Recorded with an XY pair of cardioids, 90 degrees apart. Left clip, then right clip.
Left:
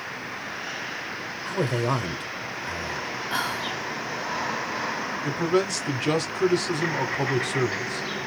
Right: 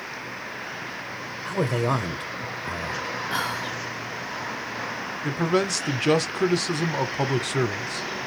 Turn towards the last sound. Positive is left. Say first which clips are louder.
# right 1 dB
turn(degrees=-20)